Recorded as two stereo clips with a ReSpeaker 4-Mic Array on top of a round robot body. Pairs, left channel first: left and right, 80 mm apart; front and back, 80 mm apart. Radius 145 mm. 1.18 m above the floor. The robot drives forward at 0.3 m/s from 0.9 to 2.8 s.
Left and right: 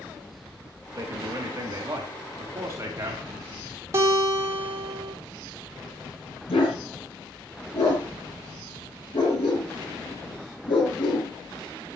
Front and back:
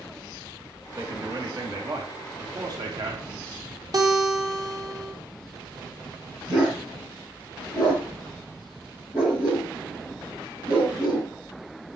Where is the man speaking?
140° right, 3.5 m; by 3.2 s 145° right, 4 m.